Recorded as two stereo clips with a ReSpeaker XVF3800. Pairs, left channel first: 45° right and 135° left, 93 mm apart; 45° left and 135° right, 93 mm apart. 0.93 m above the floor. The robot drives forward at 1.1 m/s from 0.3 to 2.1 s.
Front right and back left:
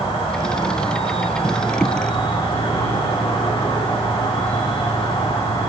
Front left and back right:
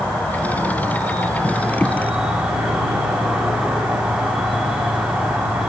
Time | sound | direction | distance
0.0 | an insect | 35° right | 4.5 m